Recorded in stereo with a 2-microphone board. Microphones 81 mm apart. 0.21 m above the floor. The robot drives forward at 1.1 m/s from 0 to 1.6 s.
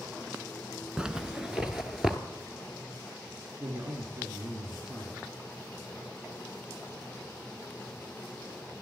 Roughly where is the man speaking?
Right.